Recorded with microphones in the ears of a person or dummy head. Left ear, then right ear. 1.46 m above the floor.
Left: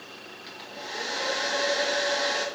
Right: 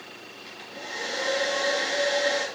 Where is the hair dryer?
10° left (ahead or behind), 2.5 m.